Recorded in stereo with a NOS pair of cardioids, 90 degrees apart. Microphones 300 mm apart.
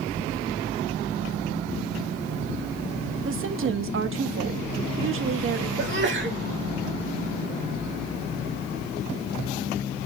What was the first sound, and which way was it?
A woman speaking, 45° right.